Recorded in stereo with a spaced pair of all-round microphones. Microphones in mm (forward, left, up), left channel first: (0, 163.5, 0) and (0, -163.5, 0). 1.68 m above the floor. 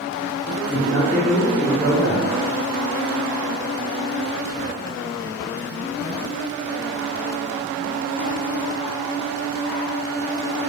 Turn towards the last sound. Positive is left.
turn(degrees=-30)  # may be behind; listen again after turning